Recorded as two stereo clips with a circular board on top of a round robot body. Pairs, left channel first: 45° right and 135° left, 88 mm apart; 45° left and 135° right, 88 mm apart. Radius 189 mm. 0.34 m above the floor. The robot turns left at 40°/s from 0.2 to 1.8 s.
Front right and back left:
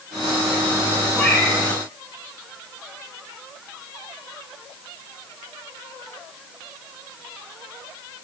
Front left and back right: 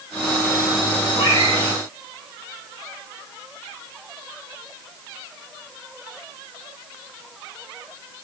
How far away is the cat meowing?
About 6 m.